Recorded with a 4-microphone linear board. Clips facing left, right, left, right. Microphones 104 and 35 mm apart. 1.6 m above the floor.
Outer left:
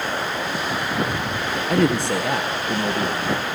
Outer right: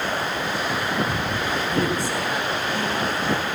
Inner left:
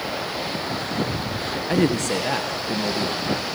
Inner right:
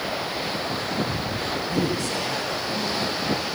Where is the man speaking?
75° left (ahead or behind), 1.4 m; by 3.5 s 85° left, 2.5 m.